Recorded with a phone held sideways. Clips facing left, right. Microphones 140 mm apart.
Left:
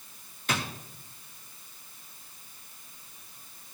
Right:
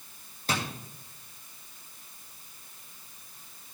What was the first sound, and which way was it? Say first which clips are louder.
A drawer: even; 35° right (ahead or behind).